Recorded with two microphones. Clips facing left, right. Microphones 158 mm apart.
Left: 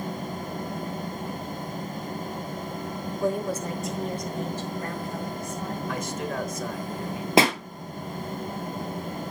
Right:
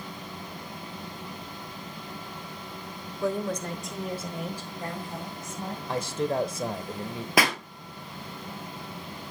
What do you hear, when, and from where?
3.2 s a woman speaking: 15° left (ahead or behind), 1.1 m; by 5.8 s 25° right (ahead or behind), 2.5 m
5.9 s a man speaking: 35° right (ahead or behind), 1.0 m
7.4 s a pop: 30° left (ahead or behind), 1.0 m